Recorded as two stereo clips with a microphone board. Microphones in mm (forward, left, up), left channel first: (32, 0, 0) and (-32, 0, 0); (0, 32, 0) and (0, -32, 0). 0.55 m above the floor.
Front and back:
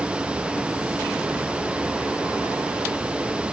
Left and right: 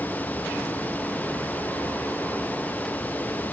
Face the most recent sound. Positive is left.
No sound to turn to.